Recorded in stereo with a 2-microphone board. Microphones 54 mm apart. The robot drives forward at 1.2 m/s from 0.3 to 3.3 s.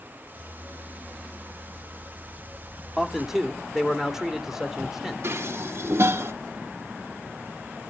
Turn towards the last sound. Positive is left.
turn(degrees=-50)  # may be behind; listen again after turning